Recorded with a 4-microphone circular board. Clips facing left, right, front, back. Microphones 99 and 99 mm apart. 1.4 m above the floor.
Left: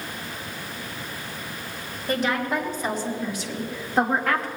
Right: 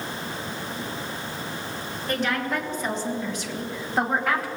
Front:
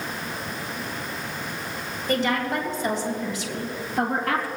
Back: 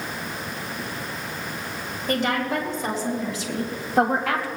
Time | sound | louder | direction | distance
2.1 | a woman speaking | left 2 dB, even | 170° left | 4.5 m